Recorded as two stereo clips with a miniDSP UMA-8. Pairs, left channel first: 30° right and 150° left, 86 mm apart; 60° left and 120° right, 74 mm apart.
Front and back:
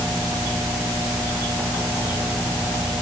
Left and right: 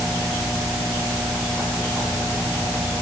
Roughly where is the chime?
No chime in this recording.